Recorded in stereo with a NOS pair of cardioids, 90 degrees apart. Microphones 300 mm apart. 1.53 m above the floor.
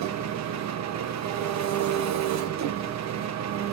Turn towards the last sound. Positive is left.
turn(degrees=-65)